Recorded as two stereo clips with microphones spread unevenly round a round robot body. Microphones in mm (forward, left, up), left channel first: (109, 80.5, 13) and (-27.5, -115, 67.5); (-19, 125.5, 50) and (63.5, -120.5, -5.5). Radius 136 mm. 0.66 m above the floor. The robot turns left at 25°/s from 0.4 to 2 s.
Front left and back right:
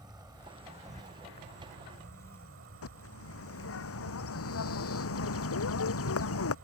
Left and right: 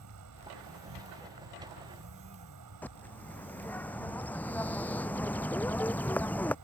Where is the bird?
25° left.